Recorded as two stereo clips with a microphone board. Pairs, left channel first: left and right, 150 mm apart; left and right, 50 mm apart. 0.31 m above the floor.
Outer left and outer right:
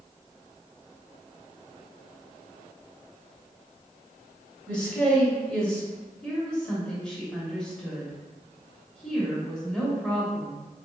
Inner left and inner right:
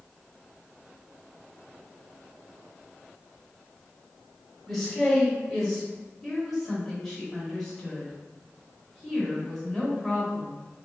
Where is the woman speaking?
5° left (ahead or behind), 1.0 m.